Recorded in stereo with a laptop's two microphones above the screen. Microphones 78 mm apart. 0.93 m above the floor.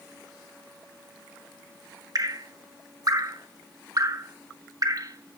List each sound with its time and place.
2.1 s dripping: 50° right (ahead or behind), 0.7 m